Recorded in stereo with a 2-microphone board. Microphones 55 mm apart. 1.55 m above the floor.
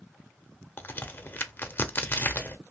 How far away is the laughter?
I don't hear laughter.